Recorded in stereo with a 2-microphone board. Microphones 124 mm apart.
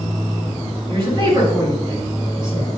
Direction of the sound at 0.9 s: 35° right (ahead or behind).